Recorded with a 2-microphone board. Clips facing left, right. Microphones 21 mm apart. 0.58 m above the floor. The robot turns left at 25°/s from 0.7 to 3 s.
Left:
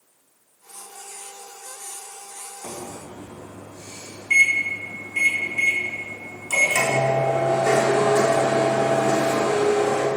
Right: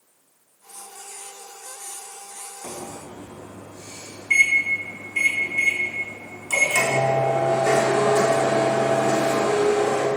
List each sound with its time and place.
2.6 s a microwave: centre (ahead or behind), 0.7 m; by 10.1 s 10° right (ahead or behind), 0.7 m